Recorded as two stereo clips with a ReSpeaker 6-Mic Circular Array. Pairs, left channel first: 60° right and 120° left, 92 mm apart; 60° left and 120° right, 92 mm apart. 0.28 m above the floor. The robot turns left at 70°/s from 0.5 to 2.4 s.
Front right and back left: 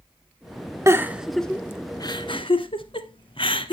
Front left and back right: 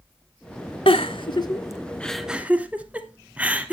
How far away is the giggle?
About 1.0 m.